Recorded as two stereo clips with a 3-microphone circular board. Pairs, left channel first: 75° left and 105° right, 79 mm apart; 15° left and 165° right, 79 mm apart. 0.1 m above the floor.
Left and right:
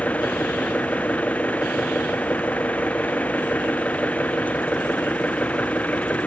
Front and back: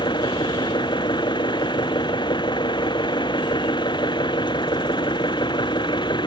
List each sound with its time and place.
0.0 s an engine running: straight ahead